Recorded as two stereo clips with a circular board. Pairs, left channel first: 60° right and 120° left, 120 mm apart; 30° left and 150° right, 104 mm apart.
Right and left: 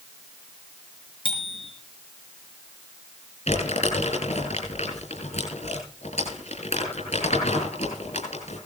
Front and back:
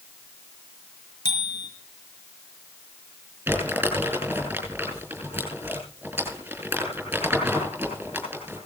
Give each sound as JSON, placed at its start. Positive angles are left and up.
{"t": 1.2, "sound": "a bicycle bell", "azimuth_deg": -20, "distance_m": 5.5}
{"t": 3.5, "sound": "crumpling", "azimuth_deg": -80, "distance_m": 6.5}